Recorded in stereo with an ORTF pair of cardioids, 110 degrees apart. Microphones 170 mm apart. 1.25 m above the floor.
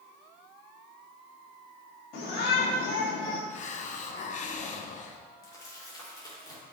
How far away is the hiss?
About 1.0 m.